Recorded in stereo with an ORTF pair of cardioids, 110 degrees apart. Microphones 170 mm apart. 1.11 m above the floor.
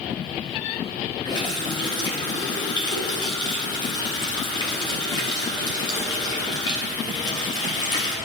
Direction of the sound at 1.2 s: 30° left.